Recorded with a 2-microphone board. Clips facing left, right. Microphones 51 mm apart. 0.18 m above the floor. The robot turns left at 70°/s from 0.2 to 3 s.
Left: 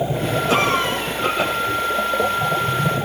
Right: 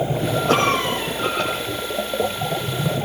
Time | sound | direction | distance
0.5 | a cough | 120° right | 9 m